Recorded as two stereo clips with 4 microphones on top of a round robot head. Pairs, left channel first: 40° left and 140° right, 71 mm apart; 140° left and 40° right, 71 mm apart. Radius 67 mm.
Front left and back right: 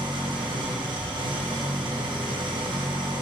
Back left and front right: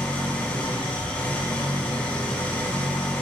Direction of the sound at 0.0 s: 145° right.